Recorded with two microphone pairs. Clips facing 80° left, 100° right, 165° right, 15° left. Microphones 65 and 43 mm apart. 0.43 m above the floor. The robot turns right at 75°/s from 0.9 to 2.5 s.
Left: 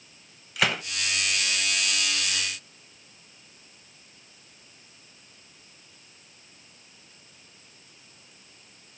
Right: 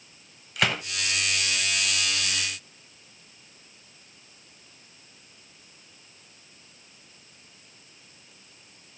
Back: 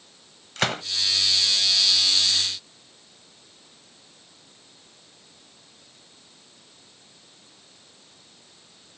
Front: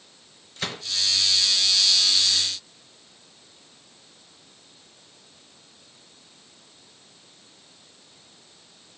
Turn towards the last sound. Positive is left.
turn(degrees=-75)